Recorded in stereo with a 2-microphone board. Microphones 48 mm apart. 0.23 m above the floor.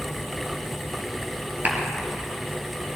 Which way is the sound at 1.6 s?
35° right (ahead or behind).